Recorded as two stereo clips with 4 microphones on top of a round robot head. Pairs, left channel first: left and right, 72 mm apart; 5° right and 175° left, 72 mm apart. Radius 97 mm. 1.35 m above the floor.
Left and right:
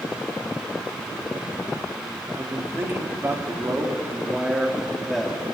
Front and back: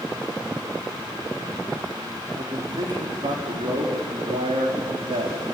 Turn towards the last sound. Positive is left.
turn(degrees=175)